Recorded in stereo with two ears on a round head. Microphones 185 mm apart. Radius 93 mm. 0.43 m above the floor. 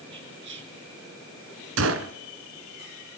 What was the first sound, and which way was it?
Whispering, 60° right (ahead or behind).